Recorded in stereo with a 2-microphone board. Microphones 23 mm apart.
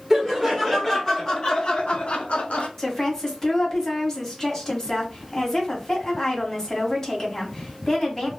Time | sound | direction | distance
0.1 | laughter | 5° right (ahead or behind) | 1.1 m
2.8 | a woman speaking | 15° left (ahead or behind) | 1.1 m